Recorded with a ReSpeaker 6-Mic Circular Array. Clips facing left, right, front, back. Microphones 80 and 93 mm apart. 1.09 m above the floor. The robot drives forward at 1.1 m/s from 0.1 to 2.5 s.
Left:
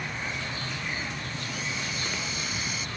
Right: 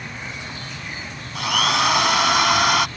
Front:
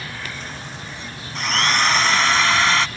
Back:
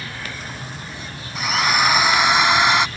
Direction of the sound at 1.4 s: 95° right.